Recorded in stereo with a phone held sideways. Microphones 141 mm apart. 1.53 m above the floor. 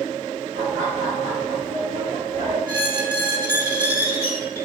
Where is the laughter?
75° right (ahead or behind), 4 m; by 2.6 s 55° right (ahead or behind), 3.5 m.